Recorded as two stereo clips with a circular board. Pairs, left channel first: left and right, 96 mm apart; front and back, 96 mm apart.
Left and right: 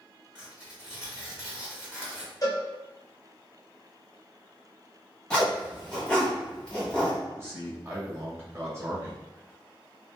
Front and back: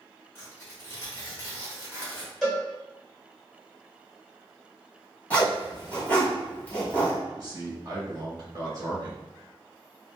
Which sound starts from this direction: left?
A cowbell, at 2.4 s.